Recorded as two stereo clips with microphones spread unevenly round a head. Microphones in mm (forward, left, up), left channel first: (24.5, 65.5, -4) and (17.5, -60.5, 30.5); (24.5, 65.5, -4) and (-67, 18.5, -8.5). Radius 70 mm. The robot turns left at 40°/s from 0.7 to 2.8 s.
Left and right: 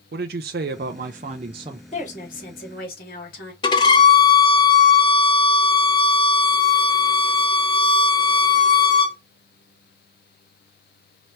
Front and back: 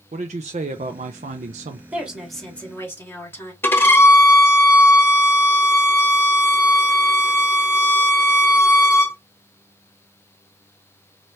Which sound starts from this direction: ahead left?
A violin, at 3.6 s.